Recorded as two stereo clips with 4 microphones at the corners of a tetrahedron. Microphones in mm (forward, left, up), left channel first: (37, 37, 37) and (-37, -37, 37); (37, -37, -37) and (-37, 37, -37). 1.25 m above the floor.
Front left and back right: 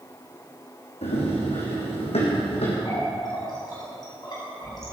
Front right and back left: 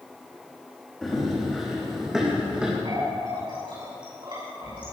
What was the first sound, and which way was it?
Running footsteps, 40° left.